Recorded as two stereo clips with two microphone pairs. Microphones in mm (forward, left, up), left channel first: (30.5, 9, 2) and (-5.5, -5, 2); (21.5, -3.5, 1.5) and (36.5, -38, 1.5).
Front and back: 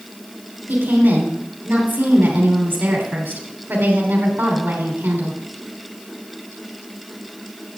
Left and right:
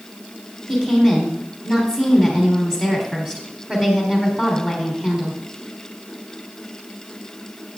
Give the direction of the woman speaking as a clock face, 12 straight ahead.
5 o'clock.